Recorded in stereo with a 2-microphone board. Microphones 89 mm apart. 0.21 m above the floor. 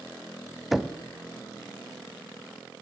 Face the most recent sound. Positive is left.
turn(degrees=-5)  # may be behind; listen again after turning